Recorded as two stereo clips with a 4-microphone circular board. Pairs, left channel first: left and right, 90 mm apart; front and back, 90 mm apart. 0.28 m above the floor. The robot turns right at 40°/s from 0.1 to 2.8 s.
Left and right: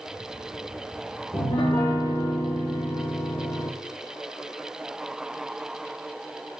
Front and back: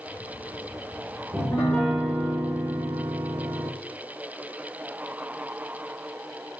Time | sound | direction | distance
1.3 | a piano | 55° left | 2.5 m